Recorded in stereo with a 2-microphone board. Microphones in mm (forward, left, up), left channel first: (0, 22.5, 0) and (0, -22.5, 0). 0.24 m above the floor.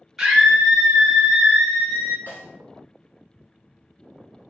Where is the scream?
5° right (ahead or behind), 1.1 m.